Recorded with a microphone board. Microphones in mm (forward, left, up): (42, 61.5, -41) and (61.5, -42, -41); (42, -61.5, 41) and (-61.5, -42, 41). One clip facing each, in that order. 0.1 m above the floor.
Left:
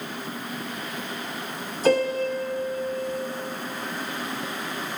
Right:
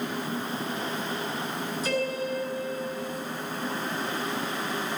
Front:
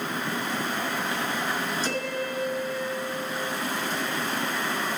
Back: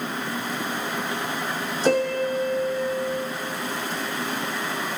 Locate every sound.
1.8 s a piano: 140° left, 2 m